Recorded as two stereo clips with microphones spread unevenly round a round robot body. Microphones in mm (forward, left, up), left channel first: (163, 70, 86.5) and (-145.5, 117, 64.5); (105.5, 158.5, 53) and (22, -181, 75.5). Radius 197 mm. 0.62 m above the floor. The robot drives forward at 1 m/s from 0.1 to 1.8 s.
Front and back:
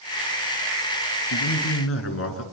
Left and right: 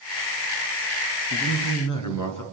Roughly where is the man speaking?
Ahead left.